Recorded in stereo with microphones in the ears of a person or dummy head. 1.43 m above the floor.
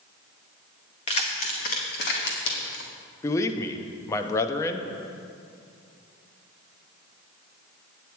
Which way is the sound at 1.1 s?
35° left (ahead or behind).